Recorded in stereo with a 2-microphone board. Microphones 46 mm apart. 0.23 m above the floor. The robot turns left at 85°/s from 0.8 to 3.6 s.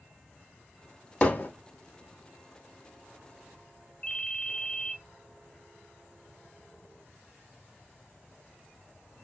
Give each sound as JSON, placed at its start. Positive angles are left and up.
{"t": 1.2, "sound": "hammering", "side_deg": 30, "distance_m": 0.6}
{"t": 4.0, "sound": "a ringtone", "side_deg": 30, "distance_m": 0.5}